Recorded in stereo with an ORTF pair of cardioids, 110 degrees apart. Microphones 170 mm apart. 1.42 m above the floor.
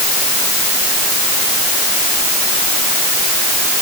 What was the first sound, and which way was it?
Only background noise.